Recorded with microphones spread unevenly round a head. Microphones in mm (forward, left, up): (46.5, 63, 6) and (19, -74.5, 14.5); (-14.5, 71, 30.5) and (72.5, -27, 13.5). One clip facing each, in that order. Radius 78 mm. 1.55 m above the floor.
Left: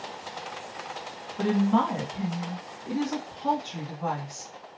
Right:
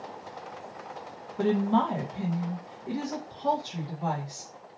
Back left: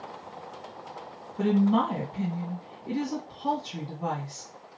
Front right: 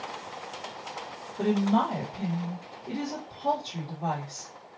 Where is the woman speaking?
170° left, 1.8 m.